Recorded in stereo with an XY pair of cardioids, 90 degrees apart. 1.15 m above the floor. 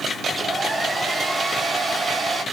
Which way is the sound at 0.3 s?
30° right.